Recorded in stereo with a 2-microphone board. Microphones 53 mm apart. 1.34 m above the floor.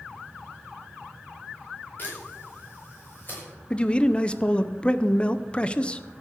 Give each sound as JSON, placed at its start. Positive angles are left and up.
{"t": 2.0, "sound": "a camera shutter", "side_deg": 35, "distance_m": 6.5}
{"t": 3.7, "sound": "a man speaking", "side_deg": 20, "distance_m": 0.7}